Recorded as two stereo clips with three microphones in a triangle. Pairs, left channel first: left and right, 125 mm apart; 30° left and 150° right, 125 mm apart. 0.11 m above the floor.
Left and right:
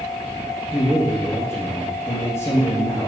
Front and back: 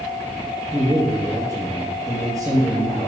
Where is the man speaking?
155° left, 2 m.